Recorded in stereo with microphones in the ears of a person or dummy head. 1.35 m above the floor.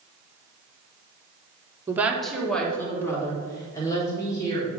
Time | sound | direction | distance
1.9 | a woman speaking | 15° right (ahead or behind) | 1.0 m